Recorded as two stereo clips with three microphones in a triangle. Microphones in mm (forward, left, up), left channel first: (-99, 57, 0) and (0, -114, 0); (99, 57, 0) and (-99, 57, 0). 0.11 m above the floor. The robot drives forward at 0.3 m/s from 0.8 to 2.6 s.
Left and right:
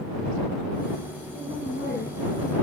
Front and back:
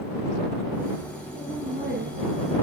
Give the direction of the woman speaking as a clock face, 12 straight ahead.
6 o'clock.